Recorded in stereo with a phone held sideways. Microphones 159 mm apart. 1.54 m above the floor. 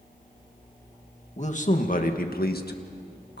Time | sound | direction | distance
1.4 | a man speaking | 45° left (ahead or behind) | 2 m